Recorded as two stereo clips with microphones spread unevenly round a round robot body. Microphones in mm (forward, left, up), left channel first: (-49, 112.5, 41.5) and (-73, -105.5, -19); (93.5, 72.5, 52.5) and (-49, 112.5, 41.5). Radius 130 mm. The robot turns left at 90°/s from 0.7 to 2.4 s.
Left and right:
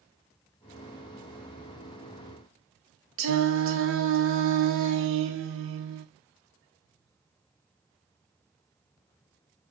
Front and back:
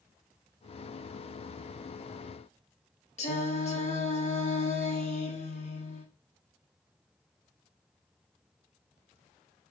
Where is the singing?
70° right, 1.6 m.